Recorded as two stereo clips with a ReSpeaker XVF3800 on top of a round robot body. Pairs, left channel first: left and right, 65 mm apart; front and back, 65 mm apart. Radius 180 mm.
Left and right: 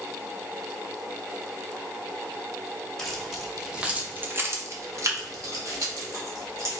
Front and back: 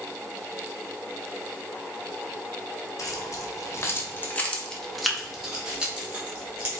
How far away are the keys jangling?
About 1.2 m.